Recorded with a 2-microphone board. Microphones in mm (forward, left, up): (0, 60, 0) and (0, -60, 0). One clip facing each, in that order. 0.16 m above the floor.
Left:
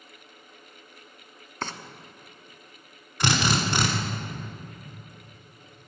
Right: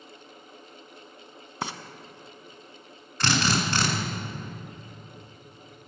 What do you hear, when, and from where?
1.6 s frying: 10° right (ahead or behind), 0.6 m
3.2 s a drill: 15° left (ahead or behind), 1.5 m